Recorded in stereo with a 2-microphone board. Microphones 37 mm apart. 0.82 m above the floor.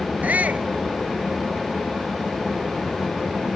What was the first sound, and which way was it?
A shout, 45° right (ahead or behind).